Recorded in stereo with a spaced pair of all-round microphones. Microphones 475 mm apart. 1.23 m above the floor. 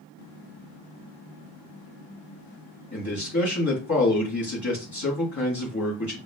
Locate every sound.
2.9 s a man speaking: 35° left (ahead or behind), 1.6 m